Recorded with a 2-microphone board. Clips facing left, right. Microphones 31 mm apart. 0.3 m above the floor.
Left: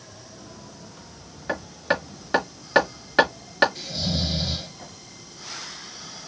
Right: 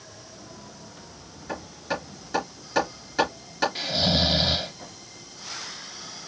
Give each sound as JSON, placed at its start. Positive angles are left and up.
{"t": 1.5, "sound": "hammering", "side_deg": 50, "distance_m": 4.5}
{"t": 3.8, "sound": "snoring", "side_deg": -55, "distance_m": 0.7}